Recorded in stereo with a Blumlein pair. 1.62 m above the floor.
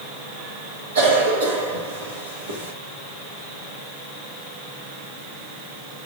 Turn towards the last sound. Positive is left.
turn(degrees=-60)